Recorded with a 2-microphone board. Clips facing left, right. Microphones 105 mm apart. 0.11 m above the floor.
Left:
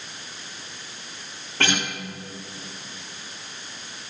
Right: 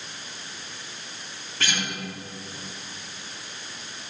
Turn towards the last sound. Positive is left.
turn(degrees=55)  # may be behind; listen again after turning